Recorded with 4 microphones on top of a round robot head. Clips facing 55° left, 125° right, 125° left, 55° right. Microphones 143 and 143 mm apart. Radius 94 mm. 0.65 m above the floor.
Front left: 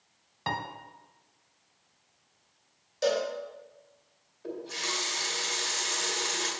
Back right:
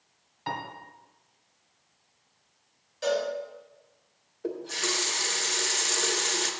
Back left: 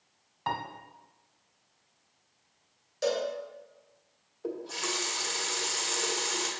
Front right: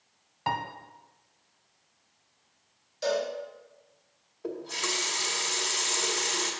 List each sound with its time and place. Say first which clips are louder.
0.5 s a piano: front left 1 dB, front right 3 dB; 25° left, 1.0 m
3.0 s a cowbell: even, front right 1 dB; 100° left, 3 m
4.4 s a running tap: back right 5 dB, even; 150° right, 1.2 m